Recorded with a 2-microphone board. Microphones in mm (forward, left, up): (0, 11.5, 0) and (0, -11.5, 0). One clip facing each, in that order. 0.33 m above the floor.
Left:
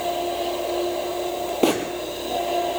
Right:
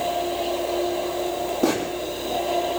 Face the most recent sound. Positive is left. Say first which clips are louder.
# left 2 dB
turn(degrees=85)